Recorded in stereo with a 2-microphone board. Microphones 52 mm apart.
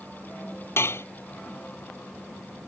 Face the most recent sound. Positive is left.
turn(degrees=55)  # may be behind; listen again after turning